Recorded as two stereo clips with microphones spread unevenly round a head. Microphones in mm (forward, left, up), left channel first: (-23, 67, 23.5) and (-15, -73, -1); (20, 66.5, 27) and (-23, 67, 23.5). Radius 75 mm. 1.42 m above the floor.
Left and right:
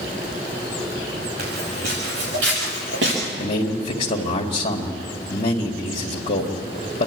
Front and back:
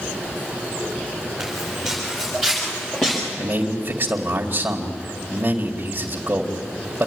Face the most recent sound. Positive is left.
turn(degrees=135)